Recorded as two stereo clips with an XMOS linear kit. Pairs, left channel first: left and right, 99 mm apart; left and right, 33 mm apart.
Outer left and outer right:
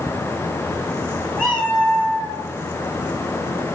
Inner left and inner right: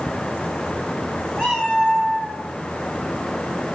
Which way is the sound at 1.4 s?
5° left (ahead or behind).